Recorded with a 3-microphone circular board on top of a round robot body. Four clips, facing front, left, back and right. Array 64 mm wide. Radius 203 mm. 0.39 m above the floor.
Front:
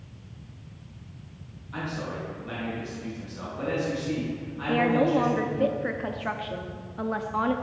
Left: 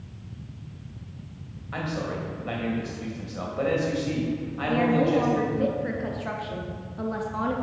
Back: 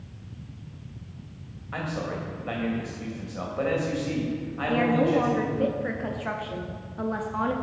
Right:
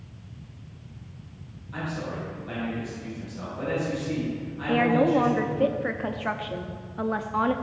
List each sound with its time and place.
1.7 s a man speaking: 145° left, 2.5 m
4.7 s a woman speaking: 80° right, 0.8 m